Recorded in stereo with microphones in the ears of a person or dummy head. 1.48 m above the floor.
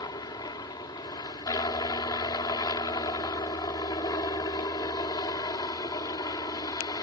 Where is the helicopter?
20° left (ahead or behind).